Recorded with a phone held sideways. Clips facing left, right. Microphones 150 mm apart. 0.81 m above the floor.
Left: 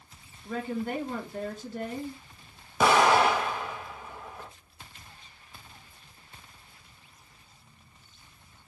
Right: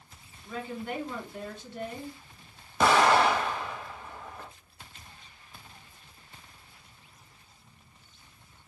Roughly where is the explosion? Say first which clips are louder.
Left 1 dB; centre.